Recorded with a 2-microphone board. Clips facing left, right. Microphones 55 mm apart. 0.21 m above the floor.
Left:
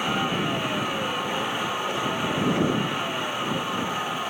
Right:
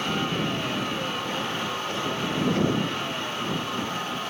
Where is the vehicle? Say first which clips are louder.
Left 2 dB; 15° left (ahead or behind).